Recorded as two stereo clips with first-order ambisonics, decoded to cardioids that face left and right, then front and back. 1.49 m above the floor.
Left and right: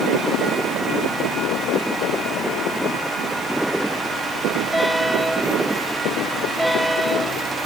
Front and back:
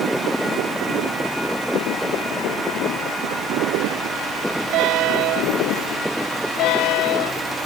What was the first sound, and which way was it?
Only background noise.